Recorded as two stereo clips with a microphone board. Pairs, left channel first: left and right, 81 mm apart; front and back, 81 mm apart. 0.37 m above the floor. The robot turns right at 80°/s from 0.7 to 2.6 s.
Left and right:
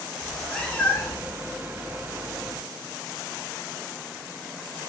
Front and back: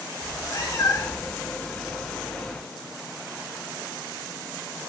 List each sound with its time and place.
0.2 s a cat meowing: 20° left, 0.6 m; by 1.4 s 70° left, 0.6 m